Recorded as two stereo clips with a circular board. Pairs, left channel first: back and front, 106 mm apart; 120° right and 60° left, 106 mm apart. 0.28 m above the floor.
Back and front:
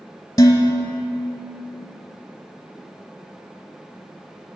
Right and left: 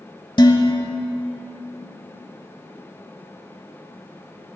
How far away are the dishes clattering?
About 0.9 m.